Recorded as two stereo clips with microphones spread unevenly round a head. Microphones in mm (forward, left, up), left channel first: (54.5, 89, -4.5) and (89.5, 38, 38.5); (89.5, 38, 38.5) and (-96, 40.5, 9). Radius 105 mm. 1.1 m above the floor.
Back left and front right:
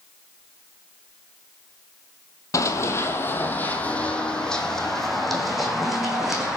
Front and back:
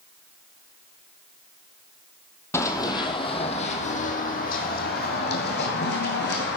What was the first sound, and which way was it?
Running footsteps, 60° left.